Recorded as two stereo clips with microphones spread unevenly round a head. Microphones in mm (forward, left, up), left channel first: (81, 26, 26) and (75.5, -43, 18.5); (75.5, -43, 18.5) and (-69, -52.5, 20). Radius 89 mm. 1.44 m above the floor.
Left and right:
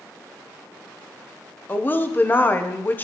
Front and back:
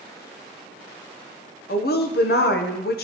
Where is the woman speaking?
25° left, 0.8 m.